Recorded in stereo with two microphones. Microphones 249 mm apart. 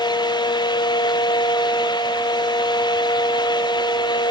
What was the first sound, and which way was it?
Only background noise.